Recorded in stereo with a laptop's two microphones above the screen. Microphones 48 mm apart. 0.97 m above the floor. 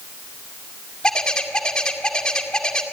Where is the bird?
15° left (ahead or behind), 2 m.